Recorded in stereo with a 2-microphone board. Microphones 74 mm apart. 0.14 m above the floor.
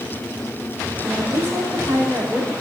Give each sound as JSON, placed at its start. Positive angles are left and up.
{"t": 1.0, "sound": "a woman speaking", "side_deg": -35, "distance_m": 5.0}